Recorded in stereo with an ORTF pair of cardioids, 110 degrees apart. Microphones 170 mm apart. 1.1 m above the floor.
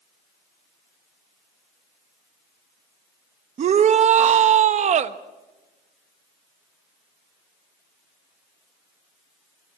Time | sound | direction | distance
3.6 | a shout | 45° right | 1.3 m